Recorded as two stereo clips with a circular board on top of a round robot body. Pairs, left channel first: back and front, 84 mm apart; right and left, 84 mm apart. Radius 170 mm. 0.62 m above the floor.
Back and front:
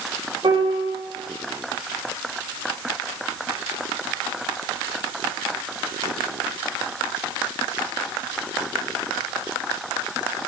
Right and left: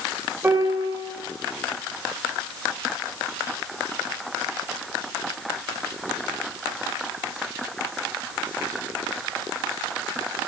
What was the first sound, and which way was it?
A piano, 25° left.